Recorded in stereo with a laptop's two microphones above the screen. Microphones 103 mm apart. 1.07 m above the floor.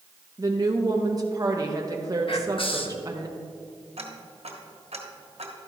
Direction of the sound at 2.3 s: 55° left (ahead or behind).